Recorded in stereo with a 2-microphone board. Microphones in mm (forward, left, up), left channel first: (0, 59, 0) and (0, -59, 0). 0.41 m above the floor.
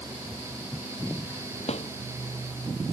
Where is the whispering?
No whispering in this recording.